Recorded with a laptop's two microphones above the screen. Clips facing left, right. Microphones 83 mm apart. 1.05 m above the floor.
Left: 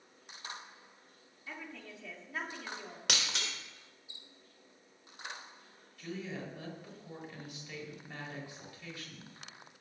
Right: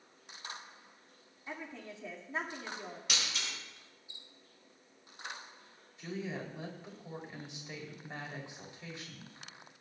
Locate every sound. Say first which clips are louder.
1.5 s a woman speaking: right 2 dB; 25° right (ahead or behind), 3 m
3.1 s breaking glass: left 3 dB; 85° left, 2.5 m
6.0 s a woman speaking: right 1 dB; 25° right (ahead or behind), 4 m